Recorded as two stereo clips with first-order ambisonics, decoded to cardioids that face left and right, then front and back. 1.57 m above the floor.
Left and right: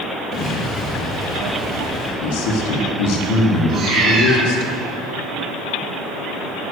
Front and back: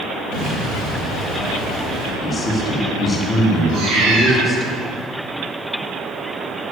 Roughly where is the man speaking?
Left.